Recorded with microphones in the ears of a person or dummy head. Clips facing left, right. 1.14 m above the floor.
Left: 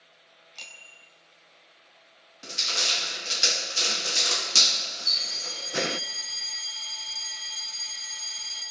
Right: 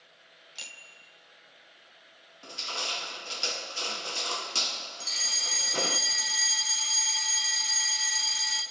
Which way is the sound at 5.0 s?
70° right (ahead or behind).